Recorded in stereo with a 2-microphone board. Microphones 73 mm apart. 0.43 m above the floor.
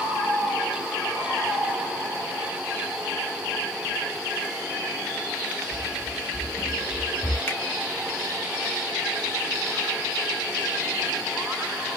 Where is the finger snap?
30° left (ahead or behind), 1.4 m.